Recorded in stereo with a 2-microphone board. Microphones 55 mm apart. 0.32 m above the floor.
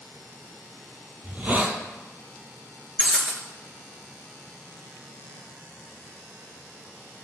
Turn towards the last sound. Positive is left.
turn(degrees=-20)  # may be behind; listen again after turning